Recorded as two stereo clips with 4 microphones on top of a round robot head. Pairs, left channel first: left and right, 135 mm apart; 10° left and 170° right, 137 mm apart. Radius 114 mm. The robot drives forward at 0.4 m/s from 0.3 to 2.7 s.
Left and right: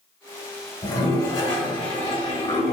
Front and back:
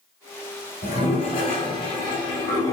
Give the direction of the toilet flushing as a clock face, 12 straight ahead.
11 o'clock.